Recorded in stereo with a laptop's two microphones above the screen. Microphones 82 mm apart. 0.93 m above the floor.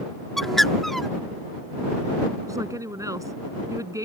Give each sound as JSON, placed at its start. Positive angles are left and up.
{"t": 0.4, "sound": "a bird", "side_deg": 0}
{"t": 2.5, "sound": "a woman speaking", "side_deg": -40}